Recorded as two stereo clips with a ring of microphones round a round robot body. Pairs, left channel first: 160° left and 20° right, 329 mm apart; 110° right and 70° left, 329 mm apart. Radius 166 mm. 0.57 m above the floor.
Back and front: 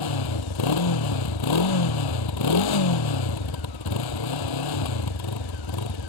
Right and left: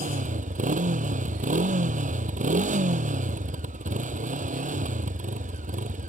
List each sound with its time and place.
0.0 s a motorcycle: 135° left